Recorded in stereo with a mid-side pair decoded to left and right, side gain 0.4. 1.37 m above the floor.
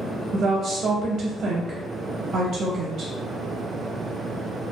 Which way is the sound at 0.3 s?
65° right.